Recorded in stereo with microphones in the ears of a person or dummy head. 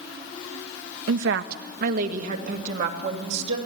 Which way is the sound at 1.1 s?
75° right (ahead or behind).